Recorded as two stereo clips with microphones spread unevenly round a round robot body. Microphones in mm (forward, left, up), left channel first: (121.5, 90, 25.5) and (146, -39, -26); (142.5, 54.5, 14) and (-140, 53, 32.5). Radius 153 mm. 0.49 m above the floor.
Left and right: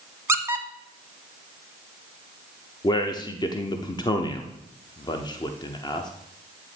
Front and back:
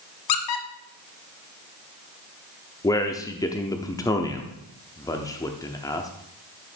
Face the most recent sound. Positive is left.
turn(degrees=35)